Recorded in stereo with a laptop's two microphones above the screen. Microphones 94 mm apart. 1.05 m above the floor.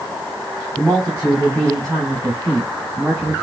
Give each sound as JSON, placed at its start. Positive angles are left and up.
{"t": 0.8, "sound": "a man speaking", "side_deg": 10, "distance_m": 2.5}